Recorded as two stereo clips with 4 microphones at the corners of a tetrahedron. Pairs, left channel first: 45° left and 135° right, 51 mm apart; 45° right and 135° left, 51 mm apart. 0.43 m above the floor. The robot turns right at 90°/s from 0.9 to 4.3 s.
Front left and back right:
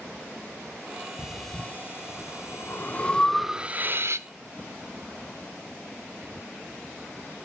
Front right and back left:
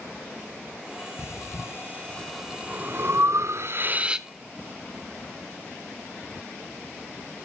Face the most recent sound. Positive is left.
turn(degrees=-140)